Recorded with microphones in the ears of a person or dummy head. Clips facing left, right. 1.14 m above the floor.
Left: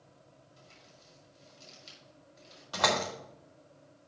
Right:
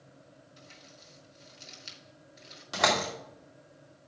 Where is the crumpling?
20° right (ahead or behind), 4 m.